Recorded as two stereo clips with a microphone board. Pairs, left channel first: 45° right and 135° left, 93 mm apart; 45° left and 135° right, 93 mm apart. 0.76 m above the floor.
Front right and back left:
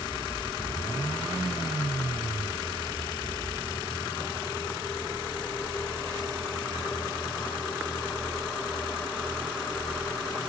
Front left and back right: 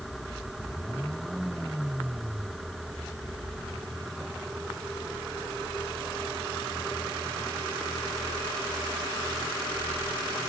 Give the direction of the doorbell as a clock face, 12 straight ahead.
No doorbell in this recording.